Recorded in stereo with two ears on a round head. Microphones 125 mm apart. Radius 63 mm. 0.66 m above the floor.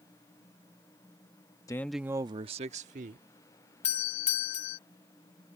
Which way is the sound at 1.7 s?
25° left (ahead or behind).